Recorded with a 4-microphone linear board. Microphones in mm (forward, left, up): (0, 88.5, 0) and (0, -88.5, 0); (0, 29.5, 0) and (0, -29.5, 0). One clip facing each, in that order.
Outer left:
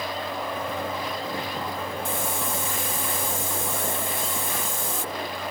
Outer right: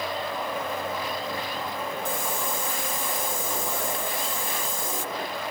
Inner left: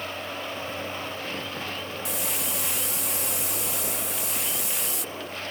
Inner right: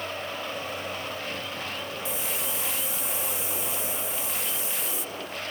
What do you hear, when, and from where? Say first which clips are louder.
2.0 s a hiss: even, inner left 1 dB; 80° left